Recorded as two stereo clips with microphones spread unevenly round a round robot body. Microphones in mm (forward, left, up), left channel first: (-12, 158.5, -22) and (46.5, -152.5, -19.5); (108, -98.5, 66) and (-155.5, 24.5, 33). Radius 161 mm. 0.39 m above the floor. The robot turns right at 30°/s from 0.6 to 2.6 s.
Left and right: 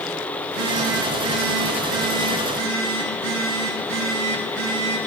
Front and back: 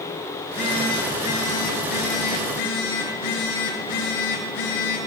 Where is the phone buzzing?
90° right, 5.5 m; by 5.0 s 30° right, 5.5 m.